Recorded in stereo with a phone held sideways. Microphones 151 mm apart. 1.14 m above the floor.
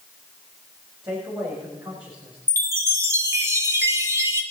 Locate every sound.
1.0 s a man speaking: 30° right (ahead or behind), 4 m; by 2.4 s 20° right (ahead or behind), 4.5 m
2.5 s a chime: 20° right (ahead or behind), 1.8 m